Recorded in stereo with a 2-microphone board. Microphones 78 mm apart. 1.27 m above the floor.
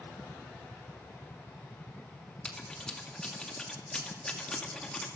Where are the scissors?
10° left (ahead or behind), 2.5 m.